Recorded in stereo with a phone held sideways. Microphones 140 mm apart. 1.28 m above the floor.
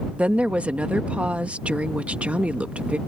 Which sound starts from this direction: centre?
A woman speaking, at 0.2 s.